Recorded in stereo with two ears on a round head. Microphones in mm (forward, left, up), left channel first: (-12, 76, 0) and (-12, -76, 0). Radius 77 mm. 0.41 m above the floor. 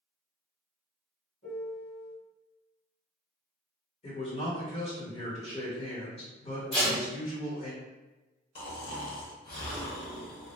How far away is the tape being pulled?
About 1.4 m.